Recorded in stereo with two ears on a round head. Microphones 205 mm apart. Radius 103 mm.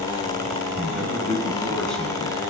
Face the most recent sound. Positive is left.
turn(degrees=5)  # may be behind; listen again after turning